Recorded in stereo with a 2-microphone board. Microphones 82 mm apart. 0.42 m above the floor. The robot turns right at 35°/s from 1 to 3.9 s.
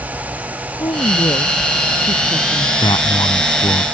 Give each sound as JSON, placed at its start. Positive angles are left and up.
{"t": 0.8, "sound": "a woman speaking", "azimuth_deg": 60}
{"t": 2.8, "sound": "a man speaking", "azimuth_deg": 95}